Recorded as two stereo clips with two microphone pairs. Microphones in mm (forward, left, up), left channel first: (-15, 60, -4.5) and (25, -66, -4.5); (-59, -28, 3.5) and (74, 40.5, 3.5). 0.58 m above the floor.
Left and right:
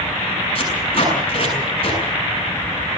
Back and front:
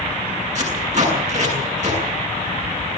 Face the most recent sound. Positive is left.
turn(degrees=65)